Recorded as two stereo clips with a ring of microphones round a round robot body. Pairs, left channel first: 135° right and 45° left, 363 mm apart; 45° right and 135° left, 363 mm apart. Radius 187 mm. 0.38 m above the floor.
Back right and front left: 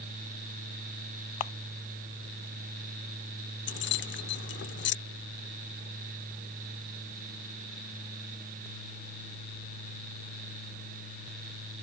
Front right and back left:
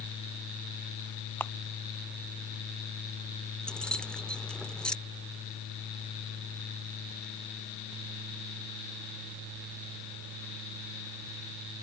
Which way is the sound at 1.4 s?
130° right.